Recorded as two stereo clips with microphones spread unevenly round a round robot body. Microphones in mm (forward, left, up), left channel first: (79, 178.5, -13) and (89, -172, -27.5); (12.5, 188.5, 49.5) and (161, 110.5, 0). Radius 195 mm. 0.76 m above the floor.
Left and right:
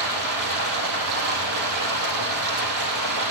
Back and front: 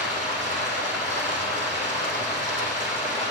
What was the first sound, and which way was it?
Running water, 130° right.